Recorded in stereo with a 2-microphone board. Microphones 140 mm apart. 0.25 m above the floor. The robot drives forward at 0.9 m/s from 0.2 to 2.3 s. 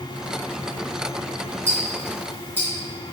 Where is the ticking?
15° right (ahead or behind), 1.1 m.